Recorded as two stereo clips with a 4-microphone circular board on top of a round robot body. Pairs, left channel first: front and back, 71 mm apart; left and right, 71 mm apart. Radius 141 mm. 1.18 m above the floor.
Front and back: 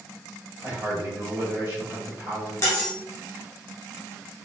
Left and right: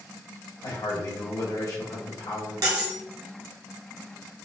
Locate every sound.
0.6 s a man speaking: 125° left, 2 m
2.6 s cutlery clinking: 50° right, 0.8 m